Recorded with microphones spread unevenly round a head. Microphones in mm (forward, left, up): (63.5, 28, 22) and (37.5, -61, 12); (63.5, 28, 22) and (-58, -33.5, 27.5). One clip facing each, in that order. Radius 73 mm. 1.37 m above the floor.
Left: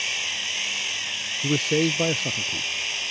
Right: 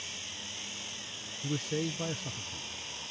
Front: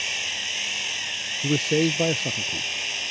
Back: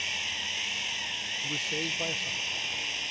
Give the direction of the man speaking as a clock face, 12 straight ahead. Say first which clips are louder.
Left 11 dB, front 15 dB; 10 o'clock.